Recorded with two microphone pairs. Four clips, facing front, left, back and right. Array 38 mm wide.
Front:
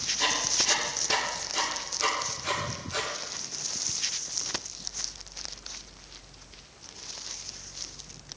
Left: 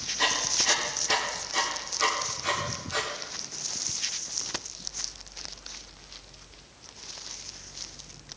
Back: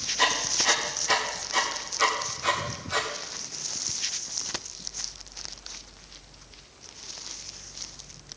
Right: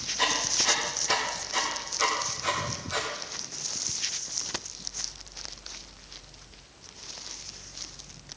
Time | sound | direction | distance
0.2 | writing | 155° right | 5 m